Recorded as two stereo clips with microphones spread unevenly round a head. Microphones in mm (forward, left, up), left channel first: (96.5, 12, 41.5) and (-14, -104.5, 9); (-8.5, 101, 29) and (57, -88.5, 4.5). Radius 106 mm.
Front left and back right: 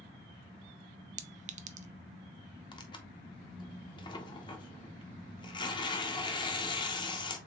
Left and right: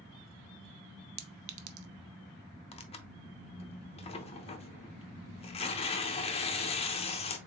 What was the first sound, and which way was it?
A clink, 90° right.